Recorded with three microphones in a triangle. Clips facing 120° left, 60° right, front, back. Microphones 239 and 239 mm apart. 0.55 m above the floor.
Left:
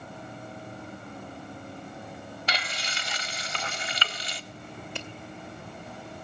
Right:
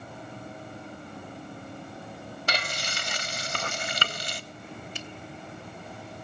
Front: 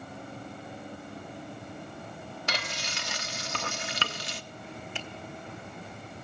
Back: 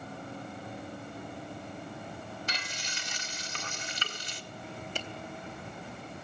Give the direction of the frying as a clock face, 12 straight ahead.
1 o'clock.